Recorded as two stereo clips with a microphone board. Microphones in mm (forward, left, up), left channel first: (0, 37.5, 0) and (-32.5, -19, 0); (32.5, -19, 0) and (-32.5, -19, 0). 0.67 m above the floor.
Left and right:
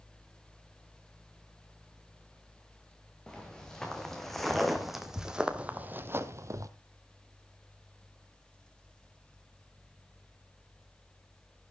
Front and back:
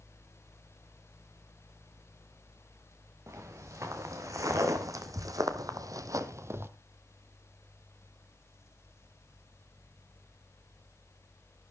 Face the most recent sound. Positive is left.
turn(degrees=-135)